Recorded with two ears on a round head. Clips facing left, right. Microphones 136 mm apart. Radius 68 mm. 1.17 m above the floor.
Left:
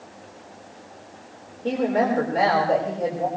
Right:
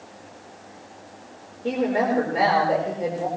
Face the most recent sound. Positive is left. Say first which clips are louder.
# left 1 dB
turn(degrees=-10)  # may be behind; listen again after turning